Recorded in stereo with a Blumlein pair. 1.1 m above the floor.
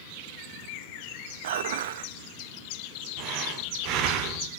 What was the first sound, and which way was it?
Dishes clattering, 55° right.